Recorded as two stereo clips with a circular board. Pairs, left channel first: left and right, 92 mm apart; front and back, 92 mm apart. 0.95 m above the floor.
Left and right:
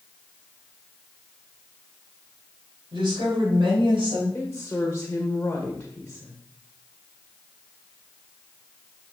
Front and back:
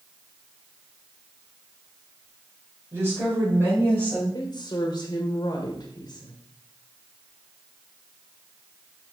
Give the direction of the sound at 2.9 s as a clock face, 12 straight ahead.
4 o'clock.